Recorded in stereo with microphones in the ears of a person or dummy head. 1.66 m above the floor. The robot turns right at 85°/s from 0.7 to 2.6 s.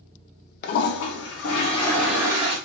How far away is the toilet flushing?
About 0.6 m.